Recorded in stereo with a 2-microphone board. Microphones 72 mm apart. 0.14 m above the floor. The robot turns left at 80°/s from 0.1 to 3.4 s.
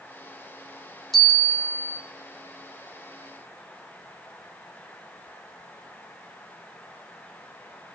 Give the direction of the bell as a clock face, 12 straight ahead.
12 o'clock.